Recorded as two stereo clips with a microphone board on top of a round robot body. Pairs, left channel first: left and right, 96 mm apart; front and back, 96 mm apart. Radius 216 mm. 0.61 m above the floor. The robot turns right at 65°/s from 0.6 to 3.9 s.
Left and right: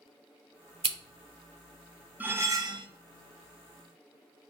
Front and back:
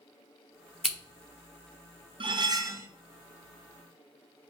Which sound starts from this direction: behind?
Cutlery clinking, at 2.2 s.